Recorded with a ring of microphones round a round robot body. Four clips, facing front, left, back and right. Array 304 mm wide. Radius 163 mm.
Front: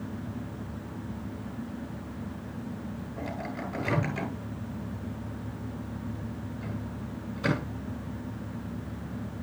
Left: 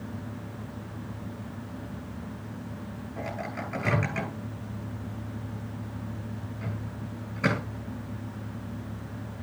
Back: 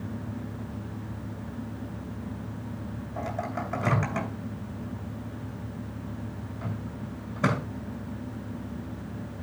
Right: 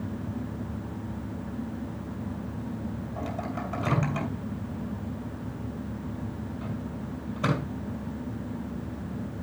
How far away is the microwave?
About 6 m.